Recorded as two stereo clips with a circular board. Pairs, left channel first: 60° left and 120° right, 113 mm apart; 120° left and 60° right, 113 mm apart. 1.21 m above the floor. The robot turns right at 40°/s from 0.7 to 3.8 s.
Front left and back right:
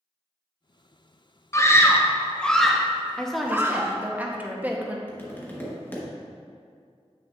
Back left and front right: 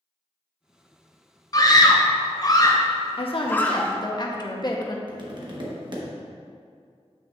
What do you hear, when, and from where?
1.5 s a scream: 100° left, 0.7 m; by 3.9 s 170° right, 0.7 m
3.2 s a woman speaking: 140° left, 0.8 m; by 5.0 s 165° left, 0.8 m
5.1 s tapping: 10° right, 1.1 m